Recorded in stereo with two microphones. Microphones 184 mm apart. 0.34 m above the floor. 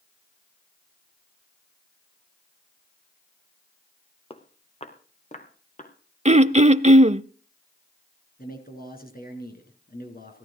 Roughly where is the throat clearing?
Right.